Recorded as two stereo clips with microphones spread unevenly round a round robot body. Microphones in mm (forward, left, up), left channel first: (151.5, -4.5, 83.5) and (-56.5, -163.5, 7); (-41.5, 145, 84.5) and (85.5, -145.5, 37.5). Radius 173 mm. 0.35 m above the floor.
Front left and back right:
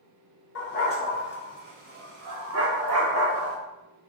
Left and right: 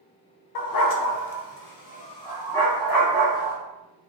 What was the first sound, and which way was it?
A dog barking, 95° left.